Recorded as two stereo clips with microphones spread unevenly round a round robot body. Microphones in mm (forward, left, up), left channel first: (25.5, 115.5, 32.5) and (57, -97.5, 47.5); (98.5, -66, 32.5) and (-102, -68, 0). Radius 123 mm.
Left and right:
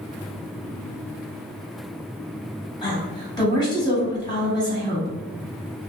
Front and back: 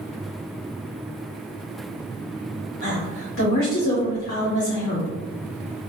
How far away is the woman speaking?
About 1.8 m.